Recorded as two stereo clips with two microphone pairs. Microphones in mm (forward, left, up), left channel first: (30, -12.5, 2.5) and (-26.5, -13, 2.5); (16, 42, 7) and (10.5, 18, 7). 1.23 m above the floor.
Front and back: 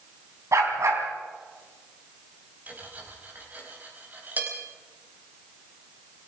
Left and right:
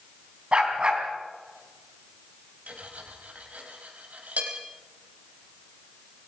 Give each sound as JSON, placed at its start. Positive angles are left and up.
{"t": 0.5, "sound": "a dog barking", "azimuth_deg": -155, "distance_m": 4.0}
{"t": 2.7, "sound": "cutlery clinking", "azimuth_deg": -120, "distance_m": 4.5}